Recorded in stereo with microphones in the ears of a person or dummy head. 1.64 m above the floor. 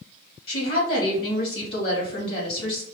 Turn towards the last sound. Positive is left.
turn(degrees=35)  # may be behind; listen again after turning